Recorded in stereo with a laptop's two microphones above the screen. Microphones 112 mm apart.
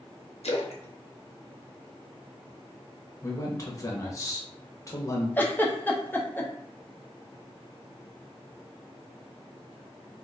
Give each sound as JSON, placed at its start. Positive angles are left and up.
{"t": 0.4, "sound": "a splash", "side_deg": 80, "distance_m": 0.6}
{"t": 3.2, "sound": "a man speaking", "side_deg": 35, "distance_m": 1.0}
{"t": 5.4, "sound": "a giggle", "side_deg": 20, "distance_m": 0.7}